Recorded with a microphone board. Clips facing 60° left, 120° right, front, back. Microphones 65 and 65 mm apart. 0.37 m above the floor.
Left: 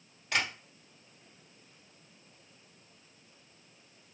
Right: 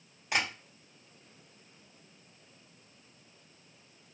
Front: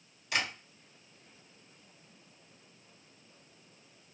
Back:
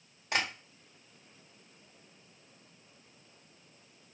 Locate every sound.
0.3 s tapping: 170° left, 1.5 m